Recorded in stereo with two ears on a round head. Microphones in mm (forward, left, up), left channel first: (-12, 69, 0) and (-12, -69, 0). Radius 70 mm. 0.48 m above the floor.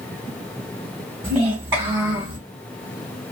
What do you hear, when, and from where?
1.2 s a child speaking: 20° right (ahead or behind), 2.5 m; by 2.4 s 15° right (ahead or behind), 3.5 m